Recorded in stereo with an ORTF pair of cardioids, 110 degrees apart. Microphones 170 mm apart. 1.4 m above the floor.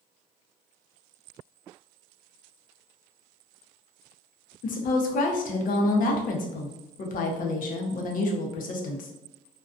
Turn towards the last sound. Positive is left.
turn(degrees=55)